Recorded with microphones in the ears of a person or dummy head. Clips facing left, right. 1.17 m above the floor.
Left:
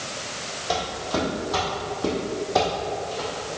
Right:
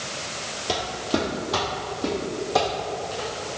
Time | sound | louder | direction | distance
0.7 | footsteps | right 1 dB | 40° right (ahead or behind) | 1.6 m